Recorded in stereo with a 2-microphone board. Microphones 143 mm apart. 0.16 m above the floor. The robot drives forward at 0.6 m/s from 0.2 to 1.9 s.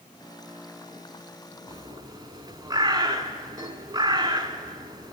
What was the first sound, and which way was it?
A bird, 25° right (ahead or behind).